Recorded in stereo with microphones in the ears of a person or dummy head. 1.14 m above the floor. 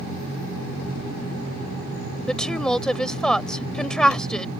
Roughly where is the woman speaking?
Centre.